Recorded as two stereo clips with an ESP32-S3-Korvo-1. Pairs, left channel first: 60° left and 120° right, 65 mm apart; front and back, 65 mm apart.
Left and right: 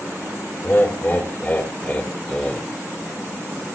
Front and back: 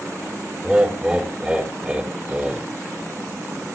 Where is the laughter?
110° left, 2.5 m; by 2.7 s 125° left, 1.8 m.